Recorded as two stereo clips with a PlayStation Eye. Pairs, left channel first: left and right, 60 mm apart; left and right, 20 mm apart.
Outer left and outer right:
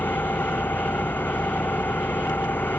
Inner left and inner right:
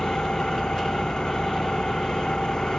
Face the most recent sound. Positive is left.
turn(degrees=35)  # may be behind; listen again after turning